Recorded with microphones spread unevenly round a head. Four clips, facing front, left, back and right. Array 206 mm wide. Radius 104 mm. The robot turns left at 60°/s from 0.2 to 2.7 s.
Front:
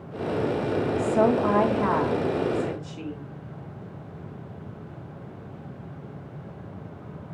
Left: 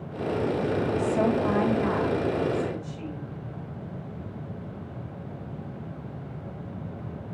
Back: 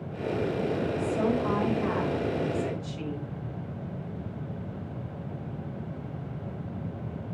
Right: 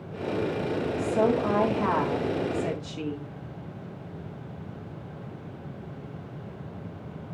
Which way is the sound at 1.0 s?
15° left.